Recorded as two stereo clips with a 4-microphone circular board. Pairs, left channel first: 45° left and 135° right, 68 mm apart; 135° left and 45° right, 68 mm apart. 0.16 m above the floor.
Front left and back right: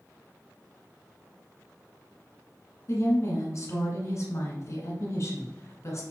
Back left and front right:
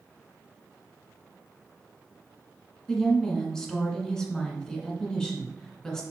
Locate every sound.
2.9 s a woman speaking: 60° left, 1.7 m